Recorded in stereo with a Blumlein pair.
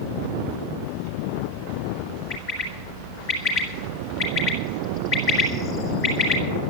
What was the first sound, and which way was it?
A bird, 35° left.